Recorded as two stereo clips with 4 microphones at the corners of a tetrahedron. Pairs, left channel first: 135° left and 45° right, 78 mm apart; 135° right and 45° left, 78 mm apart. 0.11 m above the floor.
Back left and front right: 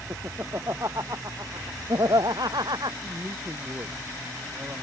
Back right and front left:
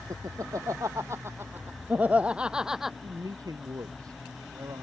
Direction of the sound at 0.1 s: 10° left.